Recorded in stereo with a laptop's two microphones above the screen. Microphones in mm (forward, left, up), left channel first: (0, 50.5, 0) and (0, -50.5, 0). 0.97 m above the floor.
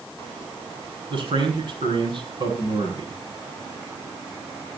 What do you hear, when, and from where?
1.1 s a man speaking: 55° right (ahead or behind), 8.5 m